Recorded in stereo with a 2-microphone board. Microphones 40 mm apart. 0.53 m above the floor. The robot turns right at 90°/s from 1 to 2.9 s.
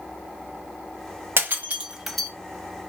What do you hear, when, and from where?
1.4 s breaking glass: 65° right (ahead or behind), 0.9 m; by 2.3 s 20° left (ahead or behind), 0.9 m